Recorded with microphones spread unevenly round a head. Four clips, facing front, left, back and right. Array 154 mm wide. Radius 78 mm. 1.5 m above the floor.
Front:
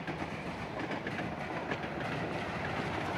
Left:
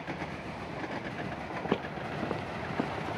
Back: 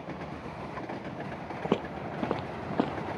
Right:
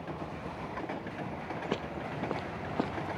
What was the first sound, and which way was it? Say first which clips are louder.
Footsteps: left 4 dB, back 6 dB; 165° left.